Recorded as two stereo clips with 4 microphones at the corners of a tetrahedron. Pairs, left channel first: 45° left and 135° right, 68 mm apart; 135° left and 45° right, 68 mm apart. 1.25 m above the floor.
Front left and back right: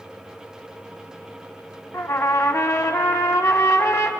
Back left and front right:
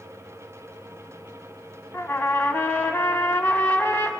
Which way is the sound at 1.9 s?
85° left.